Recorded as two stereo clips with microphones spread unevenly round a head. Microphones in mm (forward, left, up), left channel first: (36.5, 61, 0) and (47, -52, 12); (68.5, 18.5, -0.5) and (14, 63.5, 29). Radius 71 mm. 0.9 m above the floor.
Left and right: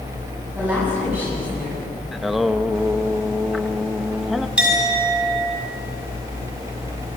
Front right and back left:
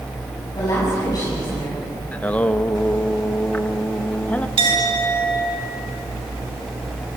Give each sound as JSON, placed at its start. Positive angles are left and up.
{"t": 0.6, "sound": "a woman speaking", "azimuth_deg": -10, "distance_m": 8.5}
{"t": 2.1, "sound": "singing", "azimuth_deg": 5, "distance_m": 1.1}
{"t": 4.6, "sound": "a clink", "azimuth_deg": -165, "distance_m": 4.0}